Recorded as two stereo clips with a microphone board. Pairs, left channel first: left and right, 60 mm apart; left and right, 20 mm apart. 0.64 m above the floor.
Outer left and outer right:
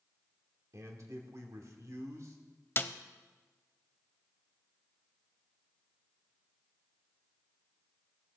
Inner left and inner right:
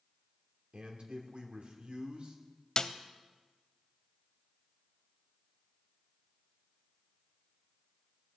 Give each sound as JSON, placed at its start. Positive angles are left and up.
{"t": 0.7, "sound": "a man speaking", "side_deg": -55, "distance_m": 1.9}
{"t": 2.8, "sound": "a snare drum", "side_deg": 35, "distance_m": 0.6}